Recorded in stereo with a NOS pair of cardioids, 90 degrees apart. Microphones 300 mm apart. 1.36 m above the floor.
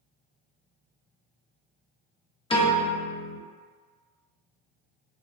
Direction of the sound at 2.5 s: 20° left.